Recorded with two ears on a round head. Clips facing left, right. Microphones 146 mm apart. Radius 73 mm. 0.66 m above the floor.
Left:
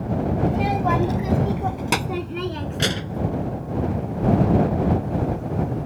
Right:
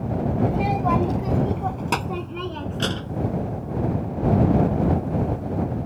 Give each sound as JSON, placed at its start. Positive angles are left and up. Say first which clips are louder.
{"t": 0.5, "sound": "a child speaking", "louder": "left 2 dB", "side_deg": -5}